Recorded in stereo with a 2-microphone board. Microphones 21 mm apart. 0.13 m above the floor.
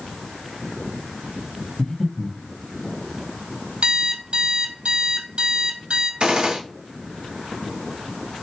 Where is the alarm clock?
55° right (ahead or behind), 1.7 m.